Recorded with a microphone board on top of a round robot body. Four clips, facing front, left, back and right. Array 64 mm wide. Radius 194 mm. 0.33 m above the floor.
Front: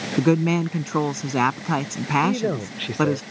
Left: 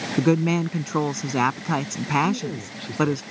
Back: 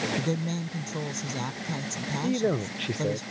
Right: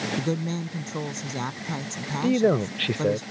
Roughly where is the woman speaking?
Ahead left.